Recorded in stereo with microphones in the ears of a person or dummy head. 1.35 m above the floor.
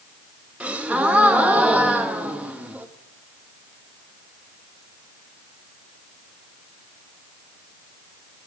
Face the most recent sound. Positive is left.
turn(degrees=0)  # may be behind; listen again after turning